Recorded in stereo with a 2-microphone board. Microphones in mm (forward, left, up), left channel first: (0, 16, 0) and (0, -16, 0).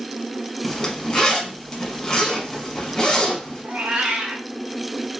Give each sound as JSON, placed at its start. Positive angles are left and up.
{"t": 0.6, "sound": "a zipper", "side_deg": 20, "distance_m": 1.0}
{"t": 3.6, "sound": "a cat meowing", "side_deg": -50, "distance_m": 0.7}